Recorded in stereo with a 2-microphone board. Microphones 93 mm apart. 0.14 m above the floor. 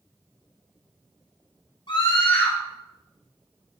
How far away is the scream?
About 3 m.